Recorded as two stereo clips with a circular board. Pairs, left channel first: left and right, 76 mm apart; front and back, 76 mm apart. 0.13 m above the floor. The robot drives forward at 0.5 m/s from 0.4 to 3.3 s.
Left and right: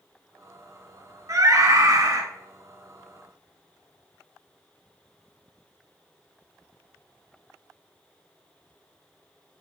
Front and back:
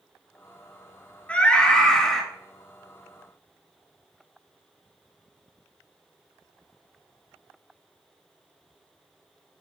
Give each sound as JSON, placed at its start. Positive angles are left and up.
{"t": 1.3, "sound": "a scream", "azimuth_deg": -70, "distance_m": 2.0}